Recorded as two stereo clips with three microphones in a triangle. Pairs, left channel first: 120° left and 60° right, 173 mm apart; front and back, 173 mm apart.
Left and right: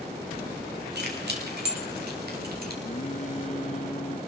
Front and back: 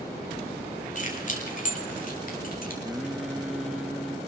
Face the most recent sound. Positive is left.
turn(degrees=90)